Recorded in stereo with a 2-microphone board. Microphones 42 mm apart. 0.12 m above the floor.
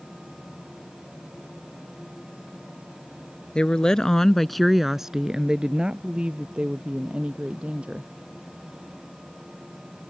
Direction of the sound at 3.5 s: 25° left (ahead or behind).